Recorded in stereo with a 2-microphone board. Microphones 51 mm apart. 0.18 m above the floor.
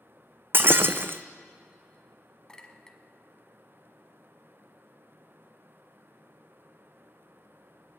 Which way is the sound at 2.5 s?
15° left (ahead or behind).